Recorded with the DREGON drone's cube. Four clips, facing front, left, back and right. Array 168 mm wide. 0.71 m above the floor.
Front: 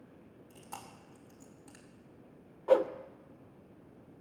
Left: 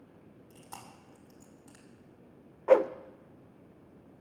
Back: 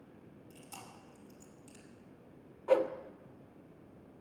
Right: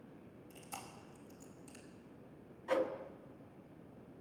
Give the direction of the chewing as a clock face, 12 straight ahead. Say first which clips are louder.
Left 1 dB, front 4 dB; 11 o'clock.